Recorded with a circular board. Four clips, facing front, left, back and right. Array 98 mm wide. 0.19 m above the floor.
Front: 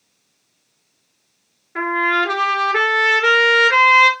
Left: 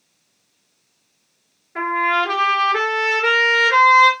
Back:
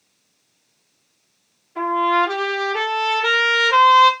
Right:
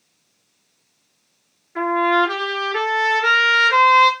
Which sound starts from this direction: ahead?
A trumpet, at 1.8 s.